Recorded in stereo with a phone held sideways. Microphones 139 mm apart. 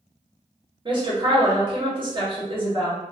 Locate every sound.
0.8 s a woman speaking: 35° right (ahead or behind), 1.0 m